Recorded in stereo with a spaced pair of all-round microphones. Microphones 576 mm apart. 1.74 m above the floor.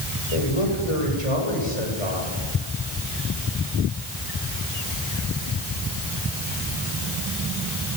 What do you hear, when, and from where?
0.3 s a man speaking: 65° left (ahead or behind), 7 m